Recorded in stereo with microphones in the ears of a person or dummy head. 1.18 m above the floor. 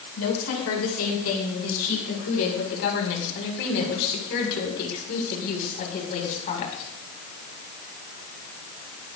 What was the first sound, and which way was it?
A woman speaking, 85° left.